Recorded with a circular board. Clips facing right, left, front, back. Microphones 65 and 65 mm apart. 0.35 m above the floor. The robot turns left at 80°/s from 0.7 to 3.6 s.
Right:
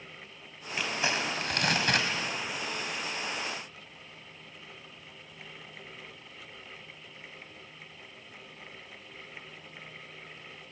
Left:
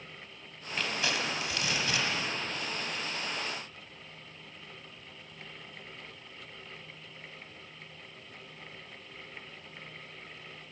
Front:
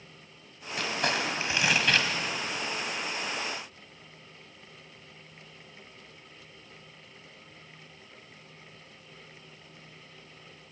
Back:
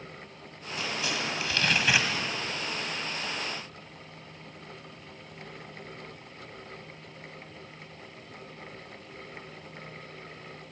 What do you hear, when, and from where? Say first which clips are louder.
0.8 s crumpling: right 2 dB, front 3 dB; 10° right, 1.9 m; by 2.1 s 115° right, 1.9 m